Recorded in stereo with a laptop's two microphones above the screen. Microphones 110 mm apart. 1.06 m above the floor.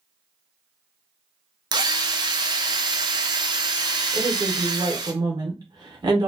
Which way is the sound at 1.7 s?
40° right (ahead or behind).